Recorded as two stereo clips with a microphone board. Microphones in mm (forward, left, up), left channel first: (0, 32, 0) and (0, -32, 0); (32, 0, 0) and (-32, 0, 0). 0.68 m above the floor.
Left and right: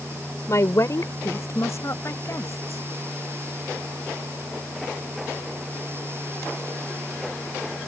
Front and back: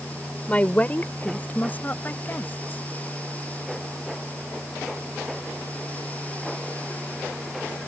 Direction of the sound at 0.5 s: 65° left.